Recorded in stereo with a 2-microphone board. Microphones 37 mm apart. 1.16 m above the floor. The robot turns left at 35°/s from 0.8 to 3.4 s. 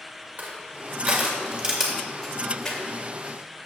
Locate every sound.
0.4 s crushing: 50° right (ahead or behind), 2 m; by 2.8 s 15° left (ahead or behind), 2 m